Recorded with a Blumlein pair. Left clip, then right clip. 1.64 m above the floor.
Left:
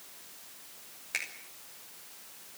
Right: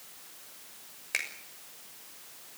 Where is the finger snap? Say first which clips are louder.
Right 3 dB; 10° right, 6 m.